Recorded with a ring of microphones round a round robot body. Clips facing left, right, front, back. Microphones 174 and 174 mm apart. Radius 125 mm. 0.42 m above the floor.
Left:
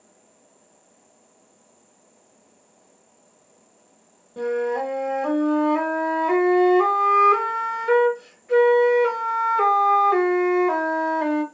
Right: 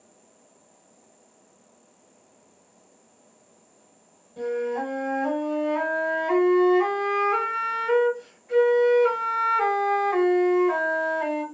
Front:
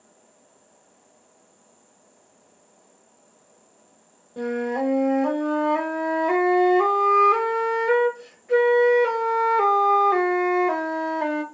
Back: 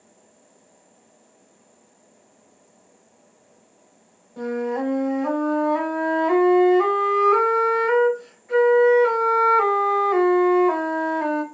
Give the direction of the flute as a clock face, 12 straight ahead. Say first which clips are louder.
Left 3 dB, even; 10 o'clock.